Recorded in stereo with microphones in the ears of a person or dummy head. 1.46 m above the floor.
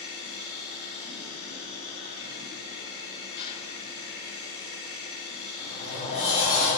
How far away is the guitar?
I don't hear a guitar.